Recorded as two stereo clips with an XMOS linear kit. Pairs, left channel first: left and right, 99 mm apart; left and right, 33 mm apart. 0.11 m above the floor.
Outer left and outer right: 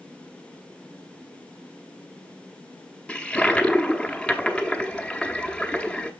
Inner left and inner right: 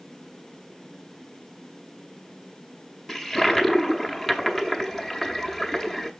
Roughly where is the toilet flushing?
Centre.